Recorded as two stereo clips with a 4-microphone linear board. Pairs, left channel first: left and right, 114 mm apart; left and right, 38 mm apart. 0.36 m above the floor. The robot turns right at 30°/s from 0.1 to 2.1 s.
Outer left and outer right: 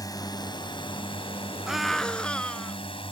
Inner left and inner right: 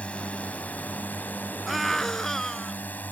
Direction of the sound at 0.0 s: 45° left.